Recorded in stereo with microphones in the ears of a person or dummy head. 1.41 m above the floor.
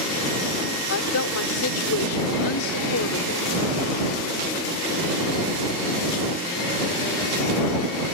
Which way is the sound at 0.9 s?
85° left.